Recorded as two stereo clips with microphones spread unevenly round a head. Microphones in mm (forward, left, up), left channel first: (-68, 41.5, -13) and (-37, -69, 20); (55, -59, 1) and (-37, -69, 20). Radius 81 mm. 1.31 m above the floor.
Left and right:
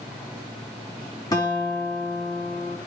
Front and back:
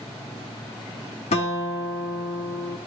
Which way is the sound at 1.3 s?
35° left.